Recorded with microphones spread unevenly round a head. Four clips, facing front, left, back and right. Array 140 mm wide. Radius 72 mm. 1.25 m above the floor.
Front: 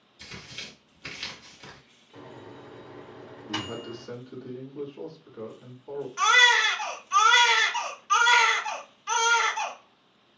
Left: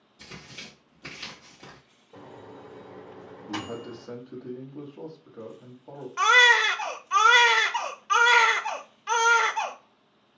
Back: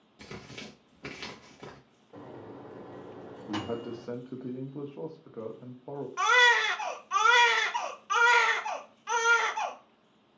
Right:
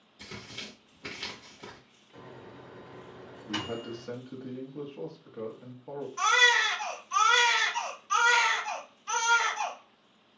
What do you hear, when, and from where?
0.2 s tearing paper: 170° left, 1.0 m
2.1 s a microwave: 145° left, 1.2 m
3.5 s a man speaking: 175° right, 1.1 m
6.2 s a baby crying: 95° left, 0.5 m